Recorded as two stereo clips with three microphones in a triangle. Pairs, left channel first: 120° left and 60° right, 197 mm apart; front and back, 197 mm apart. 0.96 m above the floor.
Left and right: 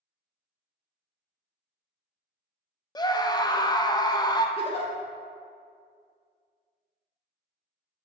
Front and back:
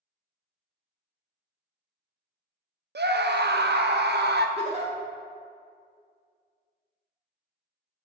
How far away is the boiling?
No boiling in this recording.